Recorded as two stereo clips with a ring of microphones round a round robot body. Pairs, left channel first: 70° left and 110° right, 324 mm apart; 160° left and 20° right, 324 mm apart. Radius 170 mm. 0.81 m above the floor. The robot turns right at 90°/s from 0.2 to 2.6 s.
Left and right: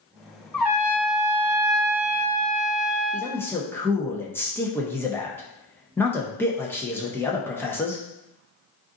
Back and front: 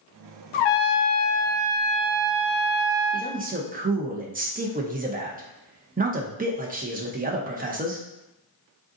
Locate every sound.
0.5 s a trumpet: 150° left, 0.6 m; by 3.3 s 25° right, 0.6 m
3.1 s a man speaking: 5° right, 0.6 m